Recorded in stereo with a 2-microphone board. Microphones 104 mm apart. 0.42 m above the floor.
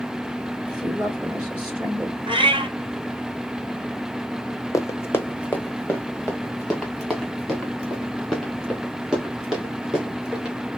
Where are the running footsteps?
35° left (ahead or behind), 0.8 m; by 10.6 s 5° right (ahead or behind), 3.5 m.